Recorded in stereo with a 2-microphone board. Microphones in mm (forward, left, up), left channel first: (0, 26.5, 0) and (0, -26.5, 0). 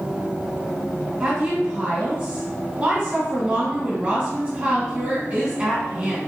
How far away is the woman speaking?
About 1.4 m.